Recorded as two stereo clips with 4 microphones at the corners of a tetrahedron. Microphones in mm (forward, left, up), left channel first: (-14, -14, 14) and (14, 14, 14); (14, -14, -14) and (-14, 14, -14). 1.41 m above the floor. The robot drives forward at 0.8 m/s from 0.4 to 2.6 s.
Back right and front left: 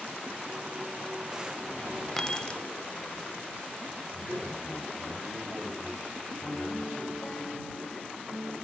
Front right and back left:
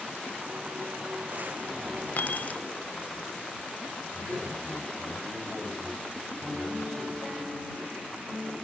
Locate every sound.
2.2 s keys jangling: 50° right, 0.8 m; by 2.6 s 85° right, 0.7 m
4.1 s a man speaking: 135° left, 7.5 m
6.4 s a piano: 175° left, 2.5 m